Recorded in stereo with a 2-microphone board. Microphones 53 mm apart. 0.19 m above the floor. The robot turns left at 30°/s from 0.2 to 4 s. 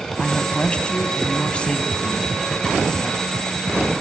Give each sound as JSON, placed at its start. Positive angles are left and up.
{"t": 0.2, "sound": "a woman speaking", "side_deg": 20, "distance_m": 1.2}